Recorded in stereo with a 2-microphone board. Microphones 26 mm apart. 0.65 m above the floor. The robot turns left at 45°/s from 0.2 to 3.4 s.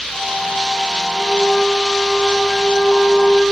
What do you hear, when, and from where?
1.2 s a flute: 145° left, 4.5 m; by 3.4 s 45° left, 4.5 m